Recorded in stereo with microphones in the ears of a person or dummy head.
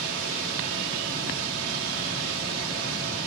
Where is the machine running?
75° right (ahead or behind), 1.6 m.